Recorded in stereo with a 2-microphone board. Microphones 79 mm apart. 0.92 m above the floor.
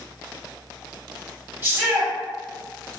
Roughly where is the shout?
Right.